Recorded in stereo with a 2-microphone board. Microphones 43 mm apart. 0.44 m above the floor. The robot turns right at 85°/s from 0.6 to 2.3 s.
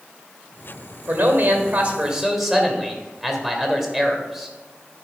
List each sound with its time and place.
1.1 s a man speaking: 120° right, 1.9 m; by 4.5 s 15° right, 1.9 m